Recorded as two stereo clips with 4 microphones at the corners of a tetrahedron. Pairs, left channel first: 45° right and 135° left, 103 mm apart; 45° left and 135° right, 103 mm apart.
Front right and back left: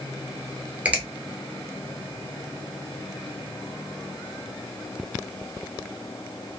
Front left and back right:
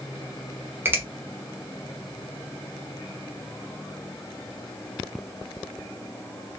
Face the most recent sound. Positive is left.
turn(degrees=-170)